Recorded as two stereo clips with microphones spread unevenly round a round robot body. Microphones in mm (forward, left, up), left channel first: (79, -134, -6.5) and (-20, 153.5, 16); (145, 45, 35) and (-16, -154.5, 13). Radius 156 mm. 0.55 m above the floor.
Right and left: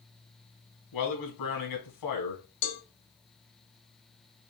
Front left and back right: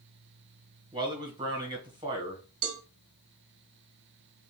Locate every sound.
0.9 s a man speaking: 60° right, 2.5 m
2.6 s a cowbell: 95° right, 1.0 m